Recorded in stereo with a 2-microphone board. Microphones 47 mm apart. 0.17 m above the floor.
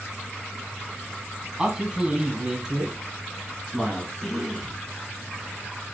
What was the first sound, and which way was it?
A man speaking, 15° right (ahead or behind).